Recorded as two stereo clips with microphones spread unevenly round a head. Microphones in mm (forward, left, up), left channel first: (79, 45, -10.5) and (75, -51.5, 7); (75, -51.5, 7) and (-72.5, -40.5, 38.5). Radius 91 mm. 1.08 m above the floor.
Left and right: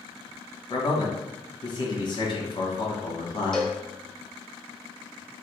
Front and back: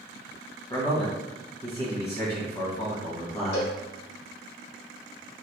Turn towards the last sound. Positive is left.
turn(degrees=-5)